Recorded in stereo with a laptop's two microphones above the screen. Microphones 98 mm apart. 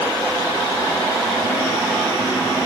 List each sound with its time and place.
Only background noise.